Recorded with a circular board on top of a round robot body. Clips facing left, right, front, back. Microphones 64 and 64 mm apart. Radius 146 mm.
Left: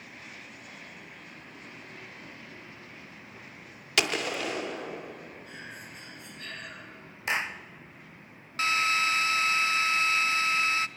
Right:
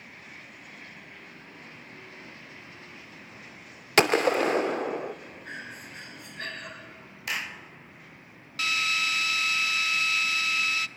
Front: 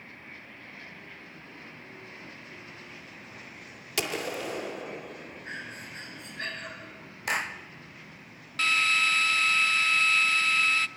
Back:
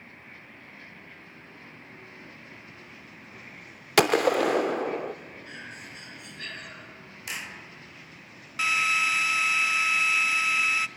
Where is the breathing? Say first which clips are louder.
Right 3 dB, front 4 dB; 55° right, 4.5 m.